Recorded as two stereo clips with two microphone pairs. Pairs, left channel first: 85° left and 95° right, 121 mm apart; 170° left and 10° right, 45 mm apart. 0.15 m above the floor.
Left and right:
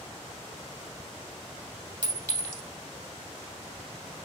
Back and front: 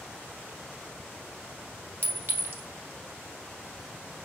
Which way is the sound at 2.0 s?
30° right.